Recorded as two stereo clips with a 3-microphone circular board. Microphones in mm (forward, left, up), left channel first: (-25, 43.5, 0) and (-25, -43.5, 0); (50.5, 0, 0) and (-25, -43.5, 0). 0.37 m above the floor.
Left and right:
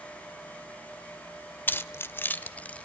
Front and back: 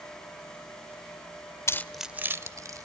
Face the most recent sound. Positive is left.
turn(degrees=165)